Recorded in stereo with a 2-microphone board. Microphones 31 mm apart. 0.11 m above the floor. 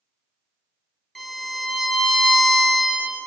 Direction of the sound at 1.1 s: 10° left (ahead or behind).